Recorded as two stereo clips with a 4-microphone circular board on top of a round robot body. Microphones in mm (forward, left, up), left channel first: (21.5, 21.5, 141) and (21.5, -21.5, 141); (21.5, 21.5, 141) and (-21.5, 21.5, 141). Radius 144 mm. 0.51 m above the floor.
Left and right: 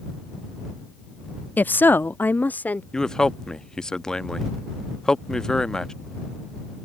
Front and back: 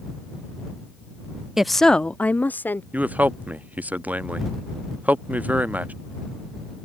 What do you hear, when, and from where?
1.6 s a woman speaking: 105° left; by 2.8 s 40° left
2.9 s a man speaking: 155° left